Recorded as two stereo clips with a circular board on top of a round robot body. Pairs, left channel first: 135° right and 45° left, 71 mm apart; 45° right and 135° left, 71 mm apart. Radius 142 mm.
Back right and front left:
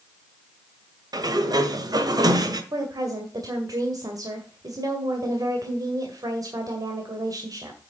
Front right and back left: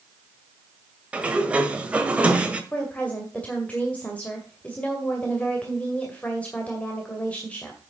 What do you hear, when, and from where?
1.1 s a sliding door: 60° left, 1.6 m
2.7 s a woman speaking: 25° left, 2 m